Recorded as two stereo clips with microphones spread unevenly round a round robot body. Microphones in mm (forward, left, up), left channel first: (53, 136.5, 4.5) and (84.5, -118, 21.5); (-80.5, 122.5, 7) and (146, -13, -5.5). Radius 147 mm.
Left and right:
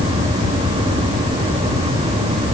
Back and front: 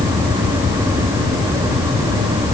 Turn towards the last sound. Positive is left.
No sound to turn to.